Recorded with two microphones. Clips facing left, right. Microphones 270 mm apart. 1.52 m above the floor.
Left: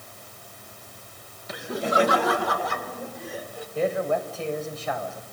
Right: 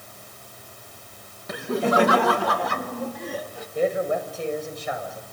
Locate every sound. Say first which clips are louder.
1.5 s laughter: right 4 dB; 60° right (ahead or behind), 1.9 m; by 3.6 s 75° right (ahead or behind), 3.5 m
3.8 s a man speaking: right 2 dB; 15° right (ahead or behind), 7 m